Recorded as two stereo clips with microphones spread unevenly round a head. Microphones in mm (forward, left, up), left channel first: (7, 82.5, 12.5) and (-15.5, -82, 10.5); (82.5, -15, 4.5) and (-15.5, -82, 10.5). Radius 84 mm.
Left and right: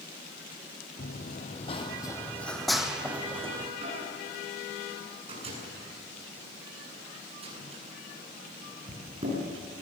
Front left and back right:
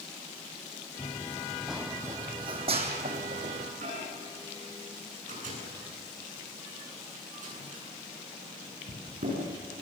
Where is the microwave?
155° right, 9.5 m.